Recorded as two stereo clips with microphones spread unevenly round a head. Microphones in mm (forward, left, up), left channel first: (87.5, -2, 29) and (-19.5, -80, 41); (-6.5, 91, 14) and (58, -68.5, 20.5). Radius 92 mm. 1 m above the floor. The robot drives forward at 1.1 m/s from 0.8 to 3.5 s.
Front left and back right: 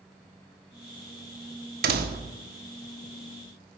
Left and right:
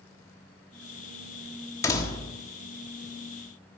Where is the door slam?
175° right, 1.1 m.